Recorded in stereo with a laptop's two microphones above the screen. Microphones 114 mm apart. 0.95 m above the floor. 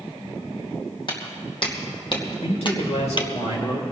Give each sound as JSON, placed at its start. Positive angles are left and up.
{"t": 1.1, "sound": "footsteps", "side_deg": 50, "distance_m": 2.5}
{"t": 2.4, "sound": "a man speaking", "side_deg": 80, "distance_m": 4.0}